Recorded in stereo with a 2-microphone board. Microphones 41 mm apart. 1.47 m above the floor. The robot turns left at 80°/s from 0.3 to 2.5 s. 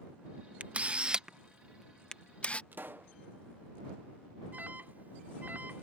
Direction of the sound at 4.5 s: 50° right (ahead or behind).